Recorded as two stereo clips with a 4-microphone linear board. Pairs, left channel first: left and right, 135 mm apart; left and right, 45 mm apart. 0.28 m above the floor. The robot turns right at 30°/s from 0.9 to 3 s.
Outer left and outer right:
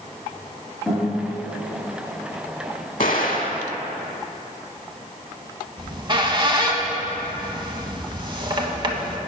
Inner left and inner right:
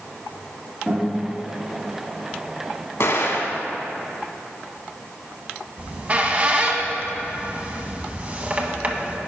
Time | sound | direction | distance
0.9 | a guitar | 5° left (ahead or behind) | 2.5 m
3.0 | an explosion | 70° left (ahead or behind) | 0.7 m
5.8 | a squeak | 35° right (ahead or behind) | 0.6 m